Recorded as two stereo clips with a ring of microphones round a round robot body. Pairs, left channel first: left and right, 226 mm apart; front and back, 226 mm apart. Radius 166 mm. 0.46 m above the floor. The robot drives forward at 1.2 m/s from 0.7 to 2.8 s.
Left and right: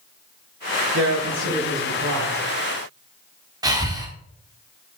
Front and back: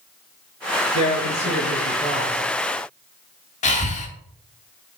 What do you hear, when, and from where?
0.9 s a man speaking: 40° right, 4.5 m; by 2.4 s 60° right, 3.5 m
3.6 s breathing: 30° right, 1.1 m